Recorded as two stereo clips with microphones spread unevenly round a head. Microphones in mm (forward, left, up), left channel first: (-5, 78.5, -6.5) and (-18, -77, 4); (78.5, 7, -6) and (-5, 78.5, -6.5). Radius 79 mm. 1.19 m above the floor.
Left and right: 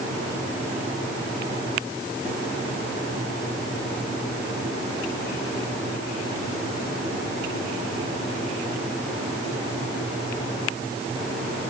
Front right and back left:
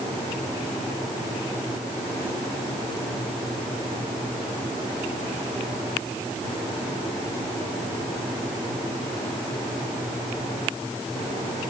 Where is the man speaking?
No man speaking in this recording.